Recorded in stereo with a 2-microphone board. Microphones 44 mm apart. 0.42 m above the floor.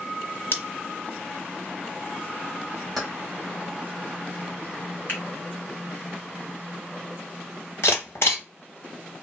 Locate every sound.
0.5 s scissors: 65° left (ahead or behind), 0.6 m
3.0 s keys jangling: centre (ahead or behind), 1.1 m
5.1 s a finger snap: 45° left (ahead or behind), 1.7 m
7.8 s a camera shutter: 75° left (ahead or behind), 1.2 m